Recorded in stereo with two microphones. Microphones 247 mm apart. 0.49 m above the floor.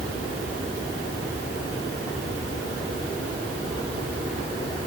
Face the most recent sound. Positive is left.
No sound to turn to.